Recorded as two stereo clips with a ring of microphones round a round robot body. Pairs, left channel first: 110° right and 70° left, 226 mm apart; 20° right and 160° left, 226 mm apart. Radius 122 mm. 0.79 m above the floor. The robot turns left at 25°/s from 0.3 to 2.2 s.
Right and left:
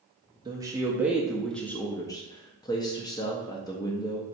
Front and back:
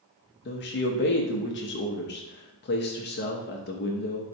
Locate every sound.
0.5 s a man speaking: straight ahead, 0.5 m; by 4.2 s 45° right, 0.5 m